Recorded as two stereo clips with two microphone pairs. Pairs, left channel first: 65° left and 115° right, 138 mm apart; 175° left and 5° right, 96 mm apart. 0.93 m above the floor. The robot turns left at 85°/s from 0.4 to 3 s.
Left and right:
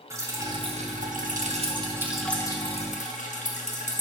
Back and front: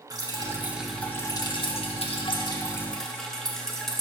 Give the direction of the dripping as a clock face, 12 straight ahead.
2 o'clock.